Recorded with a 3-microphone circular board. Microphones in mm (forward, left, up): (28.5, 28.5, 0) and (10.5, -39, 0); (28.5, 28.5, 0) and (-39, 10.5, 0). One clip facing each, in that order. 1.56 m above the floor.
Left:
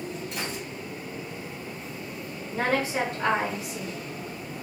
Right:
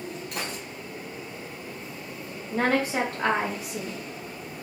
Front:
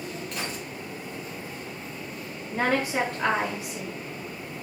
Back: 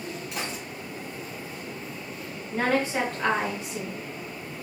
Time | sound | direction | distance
0.3 | a gunshot | 90° right | 2 m
2.5 | a woman speaking | 70° right | 2 m